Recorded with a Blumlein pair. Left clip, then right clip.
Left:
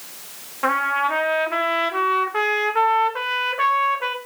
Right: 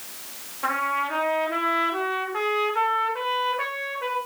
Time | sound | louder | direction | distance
0.6 | a trumpet | left 5 dB | 70° left | 1.9 m